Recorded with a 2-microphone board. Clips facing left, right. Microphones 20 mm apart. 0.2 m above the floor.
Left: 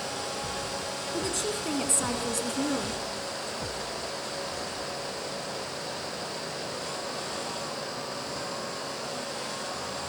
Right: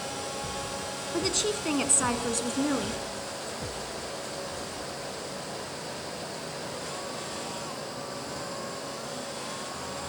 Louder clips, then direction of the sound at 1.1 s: Right 4 dB; 40° right (ahead or behind).